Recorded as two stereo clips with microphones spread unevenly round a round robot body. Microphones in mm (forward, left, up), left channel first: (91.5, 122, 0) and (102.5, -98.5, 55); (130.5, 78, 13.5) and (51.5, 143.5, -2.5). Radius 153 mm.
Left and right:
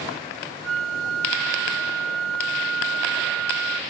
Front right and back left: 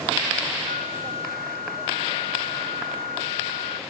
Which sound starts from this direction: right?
A flute, at 0.6 s.